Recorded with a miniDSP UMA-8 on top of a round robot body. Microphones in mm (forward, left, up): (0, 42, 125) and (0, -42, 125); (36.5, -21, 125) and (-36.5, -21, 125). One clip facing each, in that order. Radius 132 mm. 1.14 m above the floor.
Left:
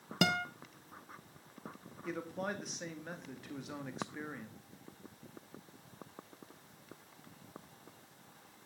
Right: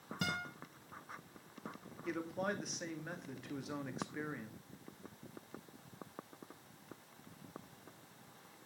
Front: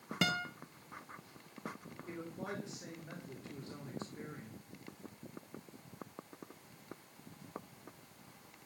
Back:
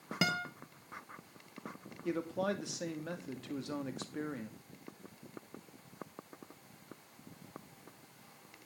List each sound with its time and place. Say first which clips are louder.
0.2 s a guitar: left 8 dB, back 1 dB; 95° left, 0.5 m
2.0 s a man speaking: even, back 9 dB; straight behind, 2.0 m